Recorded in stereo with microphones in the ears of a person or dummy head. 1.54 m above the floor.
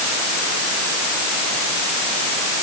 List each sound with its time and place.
Only background noise.